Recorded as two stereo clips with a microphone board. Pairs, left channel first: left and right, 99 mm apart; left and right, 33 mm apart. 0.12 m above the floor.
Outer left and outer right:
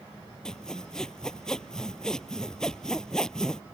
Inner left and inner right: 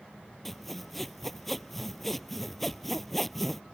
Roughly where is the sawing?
Centre.